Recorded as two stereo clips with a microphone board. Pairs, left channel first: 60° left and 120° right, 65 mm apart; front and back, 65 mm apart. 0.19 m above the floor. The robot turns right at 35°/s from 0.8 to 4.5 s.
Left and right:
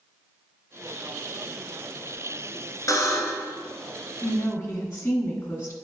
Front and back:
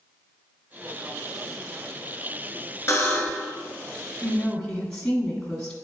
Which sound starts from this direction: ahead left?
A buzzer, at 2.9 s.